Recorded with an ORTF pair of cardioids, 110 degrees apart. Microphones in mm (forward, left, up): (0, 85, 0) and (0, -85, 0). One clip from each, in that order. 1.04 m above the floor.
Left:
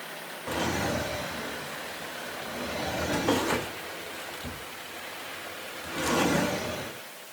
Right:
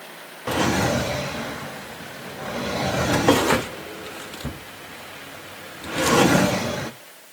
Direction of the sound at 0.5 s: 45° right.